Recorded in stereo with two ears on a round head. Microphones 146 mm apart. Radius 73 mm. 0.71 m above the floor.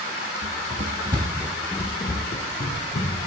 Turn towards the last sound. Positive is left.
turn(degrees=55)  # may be behind; listen again after turning